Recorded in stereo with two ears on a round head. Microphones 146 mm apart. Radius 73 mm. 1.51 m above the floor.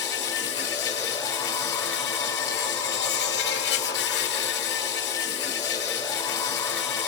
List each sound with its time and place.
0.0 s an insect: 80° left, 2.5 m